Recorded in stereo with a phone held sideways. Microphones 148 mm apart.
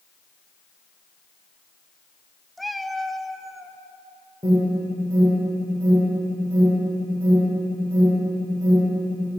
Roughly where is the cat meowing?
Centre.